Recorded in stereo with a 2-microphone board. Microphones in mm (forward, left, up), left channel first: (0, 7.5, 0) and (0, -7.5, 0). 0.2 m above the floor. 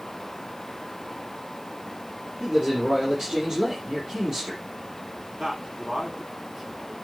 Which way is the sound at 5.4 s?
55° right (ahead or behind).